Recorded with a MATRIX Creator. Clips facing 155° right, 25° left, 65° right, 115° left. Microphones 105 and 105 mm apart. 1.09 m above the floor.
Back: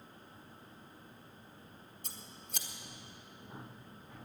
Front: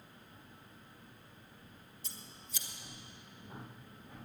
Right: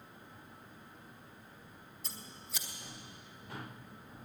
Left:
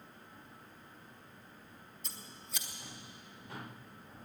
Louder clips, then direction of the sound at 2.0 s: Back 1 dB, right 2 dB; 155° right.